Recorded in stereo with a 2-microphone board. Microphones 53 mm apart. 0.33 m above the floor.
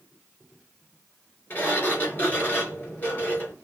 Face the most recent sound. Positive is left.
turn(degrees=30)  # may be behind; listen again after turning